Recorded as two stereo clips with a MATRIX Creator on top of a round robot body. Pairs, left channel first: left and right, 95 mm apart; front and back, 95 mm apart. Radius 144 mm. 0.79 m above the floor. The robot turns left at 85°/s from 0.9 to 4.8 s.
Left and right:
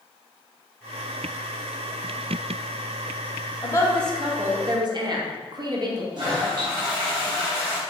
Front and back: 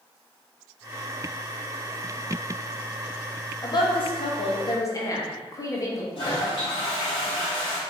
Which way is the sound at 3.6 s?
45° left.